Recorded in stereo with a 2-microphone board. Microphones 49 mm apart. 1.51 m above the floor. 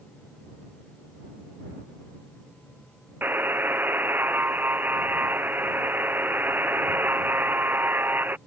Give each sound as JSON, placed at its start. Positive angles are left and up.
{"t": 3.2, "sound": "a buzzer", "side_deg": -45}